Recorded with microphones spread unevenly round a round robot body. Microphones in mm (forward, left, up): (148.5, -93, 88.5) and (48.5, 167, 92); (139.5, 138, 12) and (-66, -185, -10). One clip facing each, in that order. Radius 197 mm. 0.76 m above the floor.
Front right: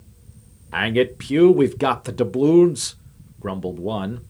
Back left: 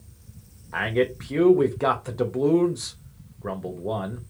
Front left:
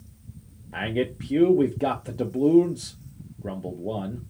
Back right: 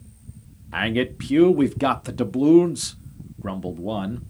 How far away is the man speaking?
About 0.6 m.